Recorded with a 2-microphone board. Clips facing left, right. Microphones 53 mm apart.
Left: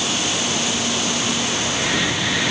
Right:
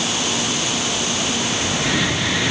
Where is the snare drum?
No snare drum in this recording.